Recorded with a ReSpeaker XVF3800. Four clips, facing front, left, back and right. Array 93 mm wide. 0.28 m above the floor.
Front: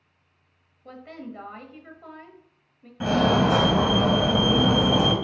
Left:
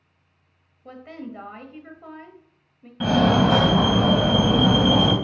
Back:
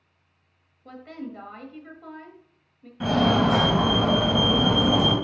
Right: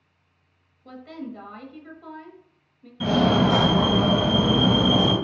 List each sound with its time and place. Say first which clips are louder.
0.8 s a woman speaking: even, back 2 dB; 70° left, 1.0 m
3.0 s a fire alarm: left 1 dB, even; 70° left, 3 m